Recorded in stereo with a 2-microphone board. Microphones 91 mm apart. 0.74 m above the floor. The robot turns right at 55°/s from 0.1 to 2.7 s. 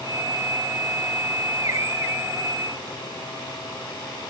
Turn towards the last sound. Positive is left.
No sound to turn to.